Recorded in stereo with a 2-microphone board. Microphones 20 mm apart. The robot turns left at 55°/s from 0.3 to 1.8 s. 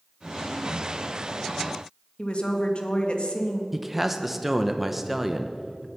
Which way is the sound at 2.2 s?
50° left (ahead or behind).